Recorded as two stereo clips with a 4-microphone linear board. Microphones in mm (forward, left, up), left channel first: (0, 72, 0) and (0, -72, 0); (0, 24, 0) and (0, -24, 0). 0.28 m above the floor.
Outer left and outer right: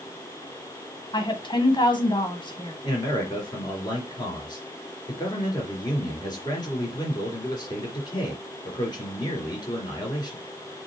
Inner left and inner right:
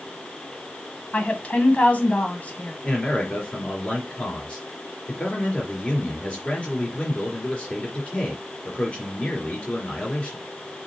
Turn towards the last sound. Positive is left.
turn(degrees=30)  # may be behind; listen again after turning